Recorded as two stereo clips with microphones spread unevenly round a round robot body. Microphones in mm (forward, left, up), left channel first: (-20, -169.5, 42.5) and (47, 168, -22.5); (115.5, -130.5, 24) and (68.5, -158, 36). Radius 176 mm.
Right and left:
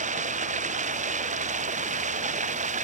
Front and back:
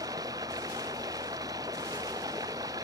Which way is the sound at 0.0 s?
150° left.